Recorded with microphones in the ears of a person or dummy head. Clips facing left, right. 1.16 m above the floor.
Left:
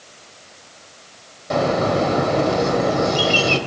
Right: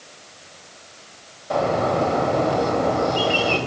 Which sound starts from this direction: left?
A bird, at 1.5 s.